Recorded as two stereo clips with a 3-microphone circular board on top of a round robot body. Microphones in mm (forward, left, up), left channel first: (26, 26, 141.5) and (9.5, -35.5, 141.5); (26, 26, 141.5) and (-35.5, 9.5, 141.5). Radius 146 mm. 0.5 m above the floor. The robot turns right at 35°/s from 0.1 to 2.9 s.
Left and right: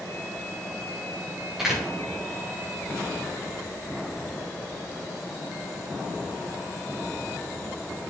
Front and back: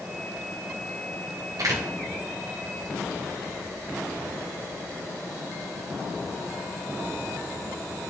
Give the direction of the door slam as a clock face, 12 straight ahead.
6 o'clock.